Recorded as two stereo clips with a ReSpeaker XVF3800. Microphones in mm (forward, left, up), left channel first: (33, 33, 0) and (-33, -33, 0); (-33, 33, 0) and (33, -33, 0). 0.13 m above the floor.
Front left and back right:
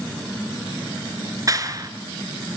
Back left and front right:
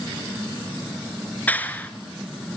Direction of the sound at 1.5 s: 160° right.